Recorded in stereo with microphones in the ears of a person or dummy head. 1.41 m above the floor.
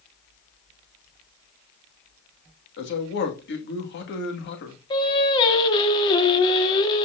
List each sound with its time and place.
2.8 s a man speaking: 60° left (ahead or behind), 2 m
4.9 s singing: 25° left (ahead or behind), 1.4 m